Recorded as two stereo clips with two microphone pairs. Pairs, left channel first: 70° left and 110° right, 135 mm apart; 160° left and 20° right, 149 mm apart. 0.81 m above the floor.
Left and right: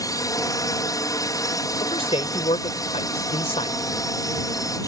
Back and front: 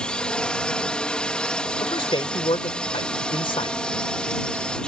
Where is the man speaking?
110° left.